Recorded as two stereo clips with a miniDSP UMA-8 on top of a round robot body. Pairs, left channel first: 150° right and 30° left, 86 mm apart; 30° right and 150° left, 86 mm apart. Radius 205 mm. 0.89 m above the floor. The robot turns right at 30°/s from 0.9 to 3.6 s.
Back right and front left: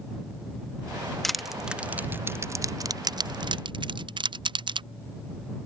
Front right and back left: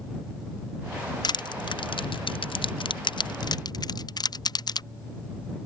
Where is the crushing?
65° right; by 4.8 s 5° left.